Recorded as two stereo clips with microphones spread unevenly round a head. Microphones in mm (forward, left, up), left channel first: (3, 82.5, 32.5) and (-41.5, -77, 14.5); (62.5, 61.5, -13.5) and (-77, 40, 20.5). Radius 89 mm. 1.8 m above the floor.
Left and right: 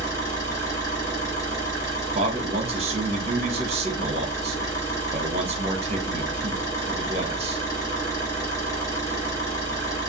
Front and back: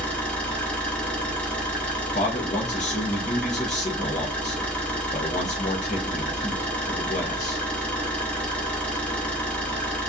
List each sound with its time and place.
0.0 s an engine running: 105° left, 1.1 m
2.1 s a man speaking: 45° right, 0.7 m